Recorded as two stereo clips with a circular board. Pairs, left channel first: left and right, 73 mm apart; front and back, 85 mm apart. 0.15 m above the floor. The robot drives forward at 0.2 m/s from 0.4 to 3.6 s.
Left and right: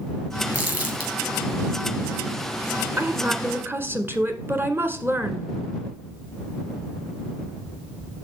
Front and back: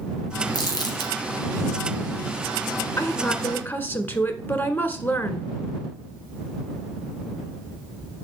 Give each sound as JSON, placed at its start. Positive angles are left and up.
{"t": 0.5, "sound": "crumpling", "azimuth_deg": -25, "distance_m": 3.0}
{"t": 3.0, "sound": "a woman speaking", "azimuth_deg": -50, "distance_m": 1.4}